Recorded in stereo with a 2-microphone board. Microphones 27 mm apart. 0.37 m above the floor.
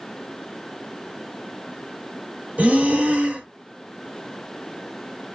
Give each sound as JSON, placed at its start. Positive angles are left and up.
{"t": 2.6, "sound": "breathing", "side_deg": -65, "distance_m": 0.9}